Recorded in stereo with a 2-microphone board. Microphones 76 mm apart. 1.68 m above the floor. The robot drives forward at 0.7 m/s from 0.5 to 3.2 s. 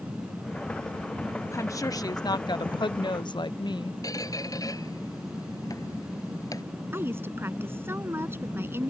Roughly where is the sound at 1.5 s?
Left.